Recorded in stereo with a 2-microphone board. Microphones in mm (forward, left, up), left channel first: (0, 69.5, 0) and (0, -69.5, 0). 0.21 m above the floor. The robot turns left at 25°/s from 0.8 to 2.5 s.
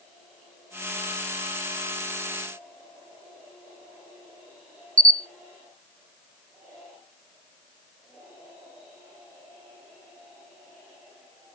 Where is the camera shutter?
85° right, 0.7 m.